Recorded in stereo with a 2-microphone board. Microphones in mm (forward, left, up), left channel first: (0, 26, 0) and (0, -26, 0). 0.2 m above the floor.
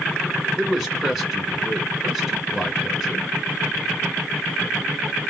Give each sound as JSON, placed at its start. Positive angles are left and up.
{"t": 0.6, "sound": "a man speaking", "side_deg": -5, "distance_m": 2.0}